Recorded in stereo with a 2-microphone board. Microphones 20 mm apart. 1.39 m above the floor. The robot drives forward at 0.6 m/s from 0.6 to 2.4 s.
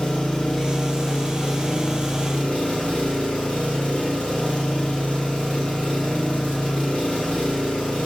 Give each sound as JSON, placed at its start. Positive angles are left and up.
{"t": 0.0, "sound": "an engine running", "side_deg": 70, "distance_m": 2.5}